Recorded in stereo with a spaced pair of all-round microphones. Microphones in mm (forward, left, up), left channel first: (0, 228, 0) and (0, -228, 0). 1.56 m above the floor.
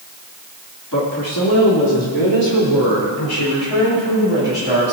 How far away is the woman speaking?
About 3 m.